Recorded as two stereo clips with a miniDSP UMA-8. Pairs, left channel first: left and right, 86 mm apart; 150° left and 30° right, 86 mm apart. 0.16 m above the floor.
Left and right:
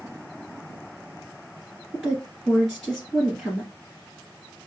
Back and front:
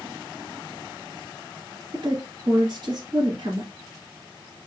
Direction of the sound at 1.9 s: 5° left.